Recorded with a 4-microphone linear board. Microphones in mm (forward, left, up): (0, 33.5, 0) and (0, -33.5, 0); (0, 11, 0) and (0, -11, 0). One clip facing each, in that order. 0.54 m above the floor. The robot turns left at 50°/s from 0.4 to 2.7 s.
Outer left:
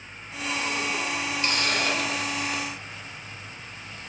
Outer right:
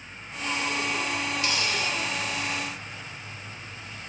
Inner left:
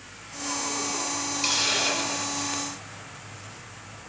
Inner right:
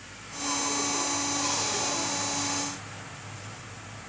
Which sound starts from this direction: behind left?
A hiss, at 1.4 s.